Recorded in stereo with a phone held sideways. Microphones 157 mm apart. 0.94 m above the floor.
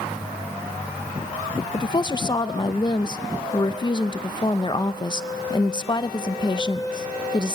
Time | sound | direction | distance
1.7 | a woman speaking | 30° left (ahead or behind) | 0.6 m